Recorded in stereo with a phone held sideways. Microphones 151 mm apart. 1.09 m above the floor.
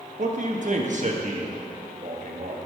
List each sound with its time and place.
0.2 s a man speaking: 55° right (ahead or behind), 1.2 m